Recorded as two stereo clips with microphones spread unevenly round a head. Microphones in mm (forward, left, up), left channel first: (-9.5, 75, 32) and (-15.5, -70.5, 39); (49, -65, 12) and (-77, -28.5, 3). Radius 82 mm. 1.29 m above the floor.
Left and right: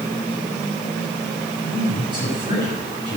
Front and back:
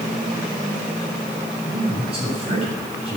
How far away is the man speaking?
About 9.5 m.